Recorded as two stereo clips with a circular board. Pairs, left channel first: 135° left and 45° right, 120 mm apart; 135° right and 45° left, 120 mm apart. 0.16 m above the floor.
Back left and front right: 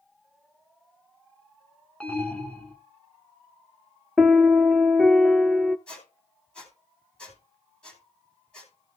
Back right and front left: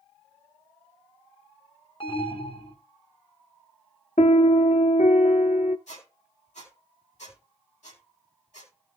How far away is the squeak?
About 3.5 m.